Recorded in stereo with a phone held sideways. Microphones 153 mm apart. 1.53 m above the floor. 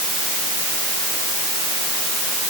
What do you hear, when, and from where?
Only background noise.